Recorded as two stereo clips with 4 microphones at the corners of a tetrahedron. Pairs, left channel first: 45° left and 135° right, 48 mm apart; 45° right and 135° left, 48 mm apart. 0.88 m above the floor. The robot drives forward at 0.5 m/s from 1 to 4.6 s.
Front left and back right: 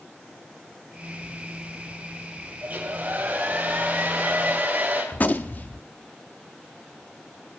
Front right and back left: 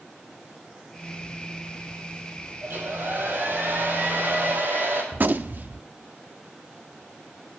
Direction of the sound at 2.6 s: 175° left.